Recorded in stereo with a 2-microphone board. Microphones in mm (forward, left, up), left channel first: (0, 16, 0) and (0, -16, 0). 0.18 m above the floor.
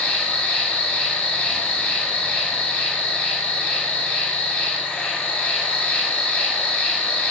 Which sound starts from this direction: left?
An insect, at 0.0 s.